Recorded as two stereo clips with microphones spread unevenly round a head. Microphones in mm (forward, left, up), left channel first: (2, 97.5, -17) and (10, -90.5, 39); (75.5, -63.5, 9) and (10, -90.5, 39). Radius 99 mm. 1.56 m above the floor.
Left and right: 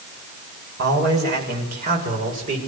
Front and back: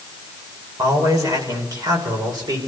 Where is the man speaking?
125° right, 7 m; by 2.6 s 140° right, 6 m.